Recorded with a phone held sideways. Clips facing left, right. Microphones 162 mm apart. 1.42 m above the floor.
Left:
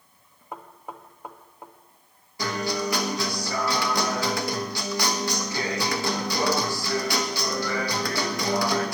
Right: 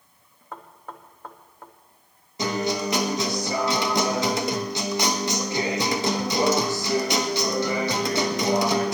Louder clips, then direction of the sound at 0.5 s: Left 1 dB; 15° left (ahead or behind).